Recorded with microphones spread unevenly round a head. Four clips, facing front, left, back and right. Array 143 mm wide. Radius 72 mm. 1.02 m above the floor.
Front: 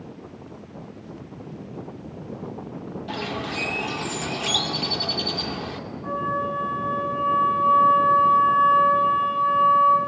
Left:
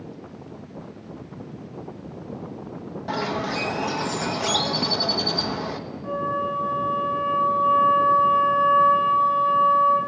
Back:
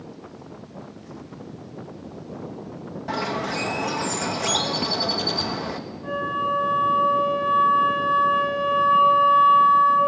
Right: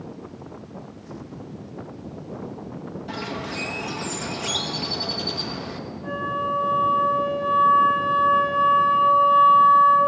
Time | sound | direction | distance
3.1 | a bird | 135° left | 0.9 m
6.0 | a flute | 165° right | 7 m